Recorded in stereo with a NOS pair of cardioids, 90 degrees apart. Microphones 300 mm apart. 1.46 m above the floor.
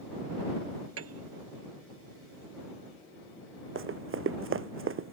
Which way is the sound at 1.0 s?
50° right.